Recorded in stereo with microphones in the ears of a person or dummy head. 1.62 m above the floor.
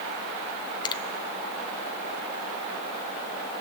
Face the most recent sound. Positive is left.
turn(degrees=25)  # may be behind; listen again after turning